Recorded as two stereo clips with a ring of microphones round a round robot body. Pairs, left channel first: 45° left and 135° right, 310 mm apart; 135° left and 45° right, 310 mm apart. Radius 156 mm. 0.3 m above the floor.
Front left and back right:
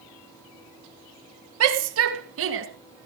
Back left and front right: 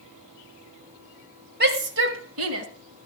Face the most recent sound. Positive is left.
turn(degrees=-85)